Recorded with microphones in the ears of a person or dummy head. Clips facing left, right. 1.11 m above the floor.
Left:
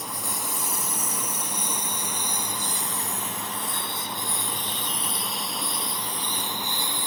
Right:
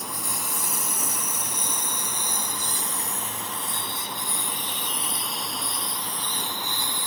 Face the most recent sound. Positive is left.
turn(degrees=25)  # may be behind; listen again after turning